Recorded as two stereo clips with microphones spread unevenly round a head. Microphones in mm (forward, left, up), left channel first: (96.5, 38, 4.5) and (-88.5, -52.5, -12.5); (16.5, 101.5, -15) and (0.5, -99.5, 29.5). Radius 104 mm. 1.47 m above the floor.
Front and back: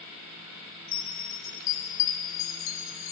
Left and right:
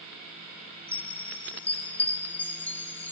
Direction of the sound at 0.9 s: Straight ahead.